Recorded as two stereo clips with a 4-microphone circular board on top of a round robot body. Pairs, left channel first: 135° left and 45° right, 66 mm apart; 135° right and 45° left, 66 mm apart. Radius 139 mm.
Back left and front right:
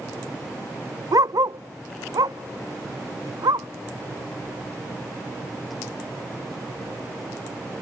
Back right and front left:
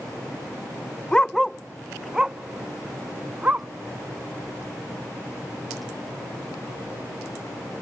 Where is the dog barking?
60° right; by 3.7 s 25° right.